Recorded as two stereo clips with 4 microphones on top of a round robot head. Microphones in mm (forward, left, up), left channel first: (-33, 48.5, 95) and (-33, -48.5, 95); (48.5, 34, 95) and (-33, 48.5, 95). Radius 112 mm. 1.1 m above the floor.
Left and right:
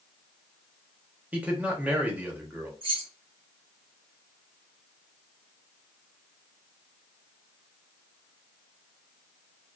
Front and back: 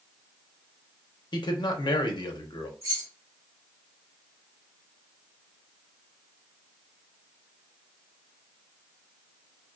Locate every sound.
1.3 s a man speaking: 20° right, 0.8 m
2.8 s keys jangling: 120° right, 0.7 m